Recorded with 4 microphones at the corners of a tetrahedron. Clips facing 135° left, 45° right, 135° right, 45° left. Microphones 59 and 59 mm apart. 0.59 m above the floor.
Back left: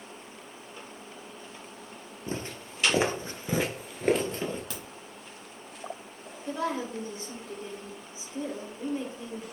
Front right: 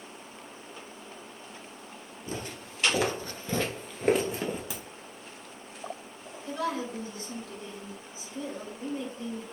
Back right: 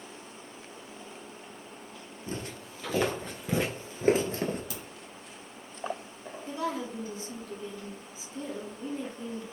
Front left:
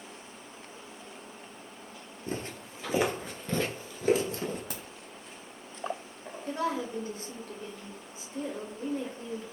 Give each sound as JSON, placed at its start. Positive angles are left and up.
{"t": 2.3, "sound": "footsteps", "azimuth_deg": 85, "distance_m": 0.9}
{"t": 4.7, "sound": "a crack", "azimuth_deg": 35, "distance_m": 1.0}
{"t": 6.5, "sound": "a woman speaking", "azimuth_deg": 75, "distance_m": 1.2}